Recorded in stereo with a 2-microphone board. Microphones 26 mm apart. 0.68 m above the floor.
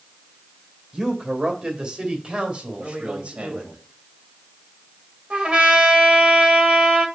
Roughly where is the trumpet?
Right.